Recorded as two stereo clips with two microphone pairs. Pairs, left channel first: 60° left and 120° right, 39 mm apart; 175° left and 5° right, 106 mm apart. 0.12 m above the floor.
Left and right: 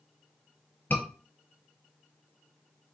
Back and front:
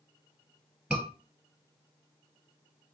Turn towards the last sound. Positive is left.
turn(degrees=70)